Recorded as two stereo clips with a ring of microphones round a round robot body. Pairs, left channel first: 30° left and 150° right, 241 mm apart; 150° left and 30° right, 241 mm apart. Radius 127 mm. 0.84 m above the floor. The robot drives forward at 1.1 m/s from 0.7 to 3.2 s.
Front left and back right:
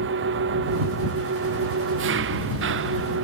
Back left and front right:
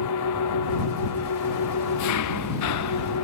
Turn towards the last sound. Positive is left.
turn(degrees=170)